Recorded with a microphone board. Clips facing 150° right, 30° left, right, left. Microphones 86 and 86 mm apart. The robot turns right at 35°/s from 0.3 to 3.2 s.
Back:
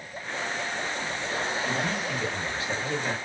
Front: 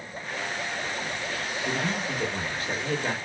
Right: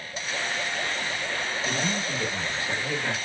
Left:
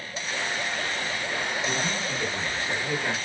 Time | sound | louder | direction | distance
1.6 | a man speaking | even, even | 45° right | 1.4 m